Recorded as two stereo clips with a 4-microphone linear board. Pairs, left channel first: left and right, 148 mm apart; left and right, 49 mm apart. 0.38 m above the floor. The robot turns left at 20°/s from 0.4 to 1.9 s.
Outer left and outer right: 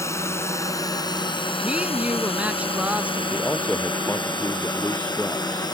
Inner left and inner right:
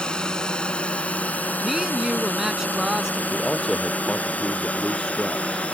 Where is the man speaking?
10° left (ahead or behind).